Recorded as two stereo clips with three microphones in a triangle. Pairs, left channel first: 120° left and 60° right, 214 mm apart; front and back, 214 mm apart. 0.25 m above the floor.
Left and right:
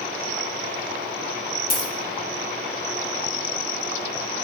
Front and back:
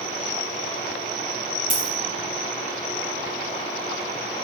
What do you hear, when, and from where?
1.7 s a dropped coin: 160° left, 0.8 m